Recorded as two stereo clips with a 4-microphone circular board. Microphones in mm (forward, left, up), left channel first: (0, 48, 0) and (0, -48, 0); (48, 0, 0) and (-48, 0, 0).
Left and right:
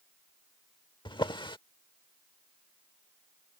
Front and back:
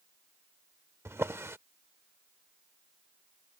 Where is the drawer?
120° left.